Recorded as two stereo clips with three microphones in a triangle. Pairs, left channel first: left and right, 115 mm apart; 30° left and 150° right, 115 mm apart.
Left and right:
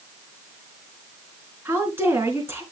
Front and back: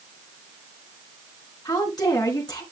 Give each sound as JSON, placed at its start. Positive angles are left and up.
{"t": 1.6, "sound": "a woman speaking", "azimuth_deg": -20, "distance_m": 3.5}